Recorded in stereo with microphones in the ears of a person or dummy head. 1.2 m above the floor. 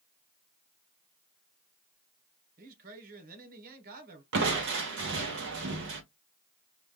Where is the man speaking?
45° right (ahead or behind), 1.1 m.